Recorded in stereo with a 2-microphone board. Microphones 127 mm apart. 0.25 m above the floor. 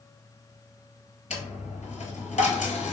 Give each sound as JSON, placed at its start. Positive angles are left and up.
{"t": 1.3, "sound": "a dropped coin", "side_deg": 70, "distance_m": 0.7}